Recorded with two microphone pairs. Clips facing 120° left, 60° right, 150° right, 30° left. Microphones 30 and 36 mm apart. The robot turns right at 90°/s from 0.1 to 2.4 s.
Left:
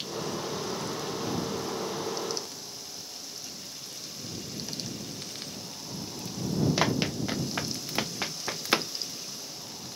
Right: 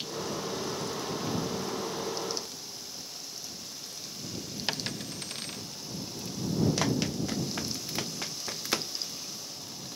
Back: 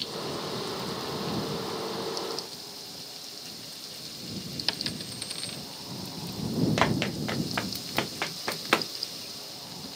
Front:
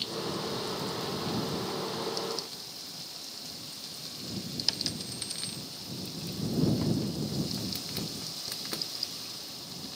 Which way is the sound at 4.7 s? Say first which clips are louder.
Right 3 dB, back 2 dB; 85° right.